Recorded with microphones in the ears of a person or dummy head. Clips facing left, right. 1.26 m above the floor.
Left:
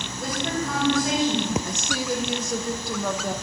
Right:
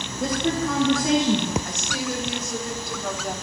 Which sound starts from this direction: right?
A woman speaking, at 0.2 s.